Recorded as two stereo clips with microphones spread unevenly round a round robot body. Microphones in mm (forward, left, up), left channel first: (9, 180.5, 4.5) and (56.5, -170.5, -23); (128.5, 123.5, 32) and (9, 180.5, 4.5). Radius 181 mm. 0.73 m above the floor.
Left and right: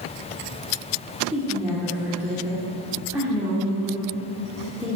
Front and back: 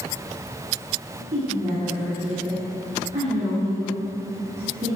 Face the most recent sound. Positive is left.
turn(degrees=-170)